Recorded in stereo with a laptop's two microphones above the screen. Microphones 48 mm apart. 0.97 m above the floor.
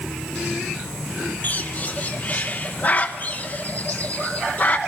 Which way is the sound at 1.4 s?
35° left (ahead or behind).